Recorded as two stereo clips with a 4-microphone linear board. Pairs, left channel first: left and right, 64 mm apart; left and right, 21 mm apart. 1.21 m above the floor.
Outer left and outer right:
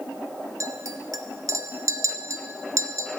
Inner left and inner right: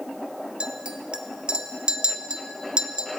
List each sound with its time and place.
0.6 s a clink: 60° right (ahead or behind), 0.6 m